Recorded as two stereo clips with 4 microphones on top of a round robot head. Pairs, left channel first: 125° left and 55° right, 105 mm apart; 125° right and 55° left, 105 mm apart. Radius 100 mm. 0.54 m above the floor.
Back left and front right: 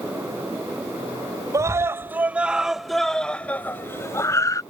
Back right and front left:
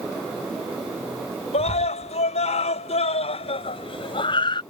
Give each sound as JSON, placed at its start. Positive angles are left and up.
{"t": 1.5, "sound": "a scream", "azimuth_deg": -110}